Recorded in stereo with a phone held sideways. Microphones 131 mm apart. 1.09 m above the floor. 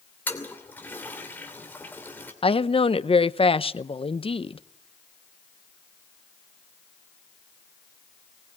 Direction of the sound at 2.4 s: 45° left (ahead or behind).